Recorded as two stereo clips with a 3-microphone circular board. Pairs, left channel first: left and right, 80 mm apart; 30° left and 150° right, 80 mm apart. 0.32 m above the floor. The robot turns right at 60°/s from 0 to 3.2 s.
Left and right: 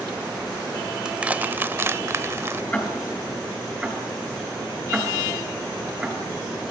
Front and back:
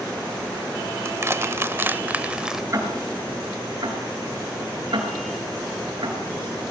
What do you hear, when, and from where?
1.1 s crushing: 165° right, 0.9 m; by 2.6 s 70° right, 0.9 m
2.7 s ticking: 160° left, 4.5 m; by 6.7 s 170° right, 4.5 m